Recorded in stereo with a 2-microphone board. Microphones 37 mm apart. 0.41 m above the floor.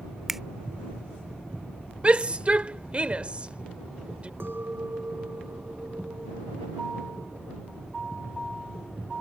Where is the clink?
70° right (ahead or behind).